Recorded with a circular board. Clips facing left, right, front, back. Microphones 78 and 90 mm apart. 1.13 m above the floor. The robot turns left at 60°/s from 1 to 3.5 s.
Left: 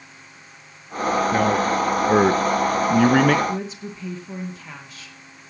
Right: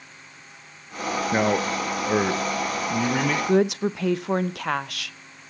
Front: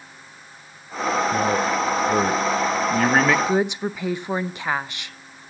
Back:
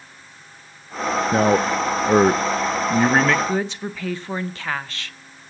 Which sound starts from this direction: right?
A woman speaking, at 3.5 s.